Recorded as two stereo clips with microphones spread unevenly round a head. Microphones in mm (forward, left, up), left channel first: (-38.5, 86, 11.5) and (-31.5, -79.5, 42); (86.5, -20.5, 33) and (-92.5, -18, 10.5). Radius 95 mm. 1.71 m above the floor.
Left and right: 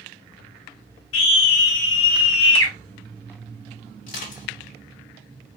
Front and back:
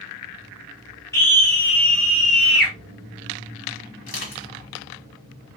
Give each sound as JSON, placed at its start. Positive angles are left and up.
{"t": 1.1, "sound": "a scream", "azimuth_deg": 75, "distance_m": 2.5}
{"t": 4.1, "sound": "crushing", "azimuth_deg": 40, "distance_m": 2.5}